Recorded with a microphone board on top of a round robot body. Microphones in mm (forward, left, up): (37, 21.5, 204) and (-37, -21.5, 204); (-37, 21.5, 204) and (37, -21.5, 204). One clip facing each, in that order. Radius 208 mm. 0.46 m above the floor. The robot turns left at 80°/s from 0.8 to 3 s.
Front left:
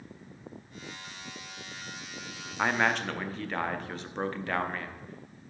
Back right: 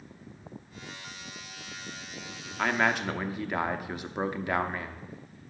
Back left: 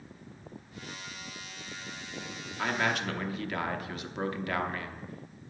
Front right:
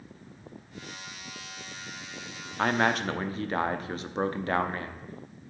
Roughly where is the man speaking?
Ahead right.